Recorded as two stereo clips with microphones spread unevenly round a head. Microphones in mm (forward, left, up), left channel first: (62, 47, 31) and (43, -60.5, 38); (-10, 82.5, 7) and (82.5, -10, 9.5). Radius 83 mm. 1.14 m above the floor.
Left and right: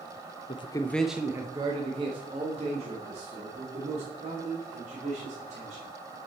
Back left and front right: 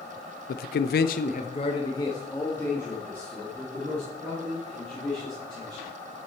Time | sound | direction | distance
0.5 | a man speaking | 125° left | 0.5 m